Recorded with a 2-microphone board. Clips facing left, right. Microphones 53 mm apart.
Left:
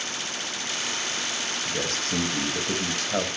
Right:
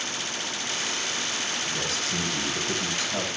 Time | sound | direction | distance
1.6 | a man speaking | 55° left (ahead or behind) | 4.5 m